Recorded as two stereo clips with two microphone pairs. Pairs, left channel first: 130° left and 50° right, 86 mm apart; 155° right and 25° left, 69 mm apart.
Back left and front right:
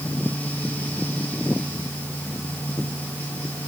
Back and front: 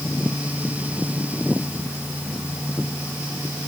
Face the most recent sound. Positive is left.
No sound to turn to.